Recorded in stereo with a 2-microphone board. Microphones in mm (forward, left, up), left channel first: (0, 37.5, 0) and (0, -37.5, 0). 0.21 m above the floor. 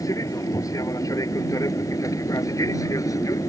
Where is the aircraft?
45° left (ahead or behind).